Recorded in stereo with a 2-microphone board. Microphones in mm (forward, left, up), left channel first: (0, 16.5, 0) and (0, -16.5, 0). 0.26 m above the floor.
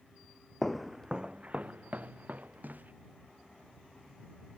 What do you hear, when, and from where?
0.6 s footsteps: 10° left (ahead or behind); by 2.9 s 60° right (ahead or behind)